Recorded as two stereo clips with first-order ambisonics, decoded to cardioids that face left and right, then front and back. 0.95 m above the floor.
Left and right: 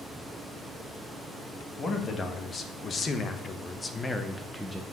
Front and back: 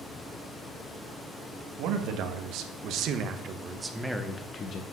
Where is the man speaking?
155° left, 1.5 m; by 4.8 s 5° right, 0.8 m.